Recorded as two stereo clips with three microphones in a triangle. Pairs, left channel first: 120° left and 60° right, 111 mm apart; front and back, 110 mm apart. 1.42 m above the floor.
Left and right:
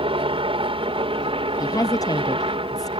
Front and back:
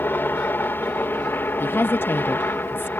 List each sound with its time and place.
0.0 s a helicopter: 70° right
1.6 s a woman speaking: 70° left